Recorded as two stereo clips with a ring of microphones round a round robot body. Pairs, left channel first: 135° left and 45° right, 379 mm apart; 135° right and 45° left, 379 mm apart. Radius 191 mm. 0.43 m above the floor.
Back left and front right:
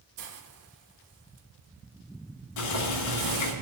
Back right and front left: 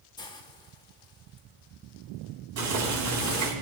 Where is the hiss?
60° right, 1.1 m.